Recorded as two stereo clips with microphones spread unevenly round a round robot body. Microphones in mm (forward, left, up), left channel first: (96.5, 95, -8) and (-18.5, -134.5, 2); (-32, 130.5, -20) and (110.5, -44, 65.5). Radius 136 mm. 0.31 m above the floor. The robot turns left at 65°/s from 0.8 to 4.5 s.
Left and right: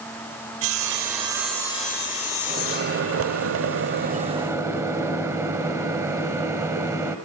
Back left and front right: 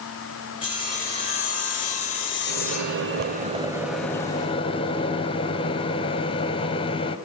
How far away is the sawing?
About 3.5 m.